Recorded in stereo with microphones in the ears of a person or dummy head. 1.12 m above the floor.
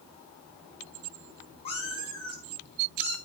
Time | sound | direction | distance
1.6 | a cat meowing | 25° left (ahead or behind) | 6.5 m